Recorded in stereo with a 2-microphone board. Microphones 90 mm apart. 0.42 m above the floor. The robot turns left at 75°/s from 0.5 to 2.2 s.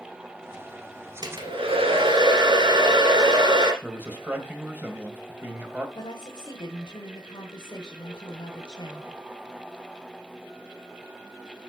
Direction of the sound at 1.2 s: 50° right.